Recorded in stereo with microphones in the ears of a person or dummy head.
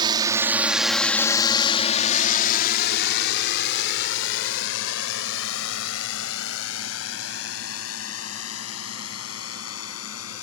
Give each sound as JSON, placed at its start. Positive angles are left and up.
{"t": 0.0, "sound": "a drone", "side_deg": -35}